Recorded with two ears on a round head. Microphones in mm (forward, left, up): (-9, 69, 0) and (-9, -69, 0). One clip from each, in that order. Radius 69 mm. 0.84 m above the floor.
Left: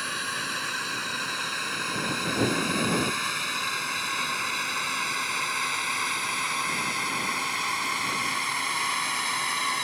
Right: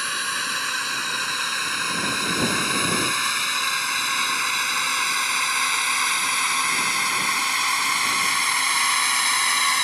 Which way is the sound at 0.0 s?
30° right (ahead or behind).